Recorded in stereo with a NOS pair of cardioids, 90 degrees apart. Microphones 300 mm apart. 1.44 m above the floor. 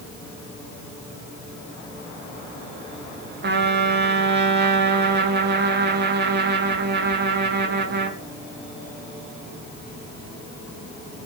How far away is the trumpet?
About 1.3 m.